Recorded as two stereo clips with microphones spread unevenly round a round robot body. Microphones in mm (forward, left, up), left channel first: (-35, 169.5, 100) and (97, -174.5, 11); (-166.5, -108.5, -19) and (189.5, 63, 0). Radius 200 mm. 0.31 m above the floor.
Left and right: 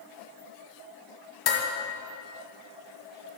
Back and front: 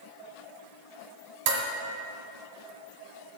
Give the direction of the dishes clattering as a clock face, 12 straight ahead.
10 o'clock.